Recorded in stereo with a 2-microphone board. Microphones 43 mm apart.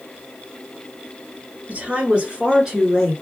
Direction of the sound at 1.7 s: 35° right (ahead or behind).